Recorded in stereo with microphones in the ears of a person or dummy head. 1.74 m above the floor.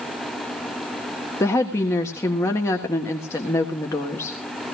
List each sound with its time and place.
1.4 s a woman speaking: 20° left (ahead or behind), 1.5 m